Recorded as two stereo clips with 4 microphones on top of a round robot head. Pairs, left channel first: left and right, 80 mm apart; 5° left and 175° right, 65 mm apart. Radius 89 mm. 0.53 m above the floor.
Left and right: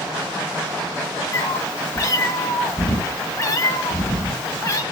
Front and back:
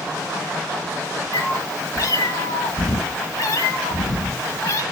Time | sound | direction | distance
1.3 | a cat meowing | 40° left | 1.7 m